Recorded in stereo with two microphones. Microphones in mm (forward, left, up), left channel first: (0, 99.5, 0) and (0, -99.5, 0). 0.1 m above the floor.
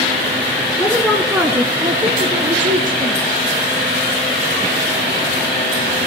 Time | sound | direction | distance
0.8 | a woman speaking | 15° left (ahead or behind) | 1.2 m